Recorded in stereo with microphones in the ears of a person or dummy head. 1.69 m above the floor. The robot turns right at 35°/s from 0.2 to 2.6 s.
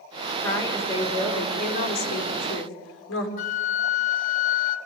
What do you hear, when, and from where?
0.4 s a woman speaking: 10° left, 5.5 m; by 3.3 s 85° left, 5.5 m
3.4 s a flute: 45° left (ahead or behind), 1.6 m